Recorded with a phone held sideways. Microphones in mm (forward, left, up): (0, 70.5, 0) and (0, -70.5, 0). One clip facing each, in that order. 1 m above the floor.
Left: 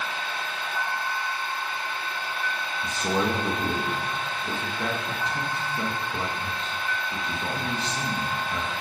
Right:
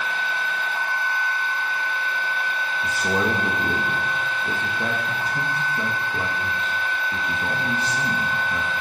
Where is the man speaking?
10° right (ahead or behind), 1.5 m.